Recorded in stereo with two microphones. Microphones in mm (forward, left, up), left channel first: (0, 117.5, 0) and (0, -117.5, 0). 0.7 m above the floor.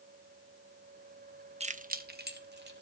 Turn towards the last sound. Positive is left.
turn(degrees=-45)  # may be behind; listen again after turning